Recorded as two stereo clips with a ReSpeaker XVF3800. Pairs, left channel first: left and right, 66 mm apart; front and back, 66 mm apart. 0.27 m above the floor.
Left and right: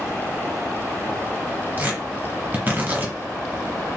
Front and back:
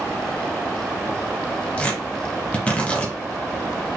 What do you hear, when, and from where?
1.8 s tearing paper: 60° right, 1.8 m